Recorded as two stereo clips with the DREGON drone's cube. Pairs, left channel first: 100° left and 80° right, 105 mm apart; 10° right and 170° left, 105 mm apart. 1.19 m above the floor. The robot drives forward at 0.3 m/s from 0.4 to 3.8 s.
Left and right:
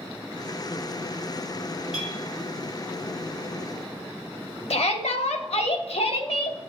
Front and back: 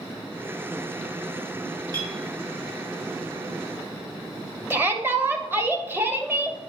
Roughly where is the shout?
Left.